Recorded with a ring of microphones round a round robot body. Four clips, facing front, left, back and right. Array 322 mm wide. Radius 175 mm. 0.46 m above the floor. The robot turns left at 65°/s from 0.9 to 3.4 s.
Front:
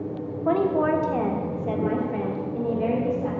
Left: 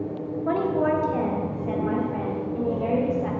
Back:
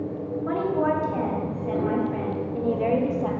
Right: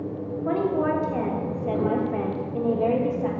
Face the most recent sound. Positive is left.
turn(degrees=-155)